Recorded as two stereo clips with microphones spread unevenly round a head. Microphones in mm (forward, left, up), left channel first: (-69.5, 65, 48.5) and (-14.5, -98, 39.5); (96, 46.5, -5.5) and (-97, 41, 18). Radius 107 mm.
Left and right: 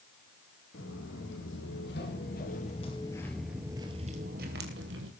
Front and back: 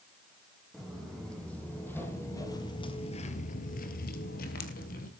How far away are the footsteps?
About 4.5 m.